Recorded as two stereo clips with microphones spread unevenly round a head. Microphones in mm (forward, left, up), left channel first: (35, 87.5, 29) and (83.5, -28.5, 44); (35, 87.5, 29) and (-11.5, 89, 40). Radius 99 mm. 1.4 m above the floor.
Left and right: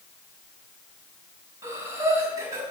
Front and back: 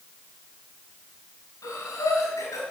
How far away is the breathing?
About 3.5 m.